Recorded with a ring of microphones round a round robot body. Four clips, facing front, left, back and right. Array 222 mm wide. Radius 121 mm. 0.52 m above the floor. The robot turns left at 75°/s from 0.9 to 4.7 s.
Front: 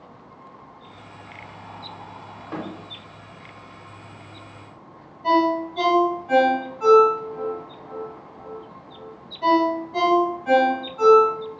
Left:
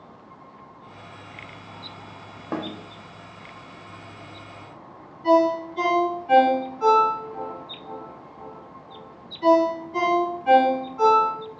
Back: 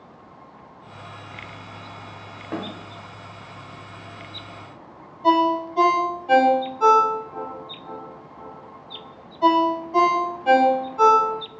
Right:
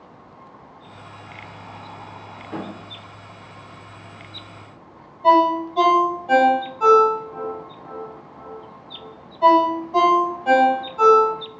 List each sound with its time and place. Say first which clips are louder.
2.5 s a snare drum: left 2 dB, back 2 dB; 110° left, 0.7 m; by 2.7 s 100° left, 0.7 m
5.2 s a ringtone: right 3 dB, back 1 dB; 130° right, 2 m